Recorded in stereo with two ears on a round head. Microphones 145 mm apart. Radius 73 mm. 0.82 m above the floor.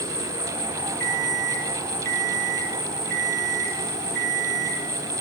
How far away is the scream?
I don't hear a scream.